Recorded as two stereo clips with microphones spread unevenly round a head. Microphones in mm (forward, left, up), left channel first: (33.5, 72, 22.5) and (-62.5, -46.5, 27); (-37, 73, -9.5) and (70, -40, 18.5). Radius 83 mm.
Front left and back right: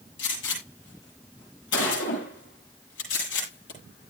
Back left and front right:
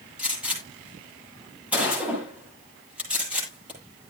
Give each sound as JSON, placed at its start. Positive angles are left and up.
{"t": 0.2, "sound": "a gunshot", "azimuth_deg": 35, "distance_m": 9.5}